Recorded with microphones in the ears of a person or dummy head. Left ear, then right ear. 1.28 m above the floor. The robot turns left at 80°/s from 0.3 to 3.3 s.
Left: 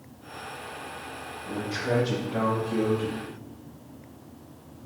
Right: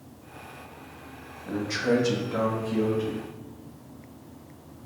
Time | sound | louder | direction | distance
1.4 | a man speaking | right 3 dB | 55° right | 1.9 m